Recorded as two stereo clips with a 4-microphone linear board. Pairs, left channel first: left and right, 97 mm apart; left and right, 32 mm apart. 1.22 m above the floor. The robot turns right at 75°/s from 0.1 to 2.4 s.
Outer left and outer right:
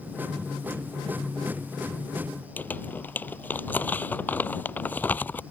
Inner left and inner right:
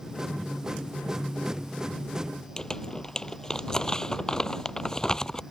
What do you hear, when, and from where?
2.6 s crumpling: 20° left (ahead or behind)